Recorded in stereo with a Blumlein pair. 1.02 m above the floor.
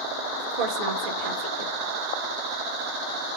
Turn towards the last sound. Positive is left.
turn(degrees=-45)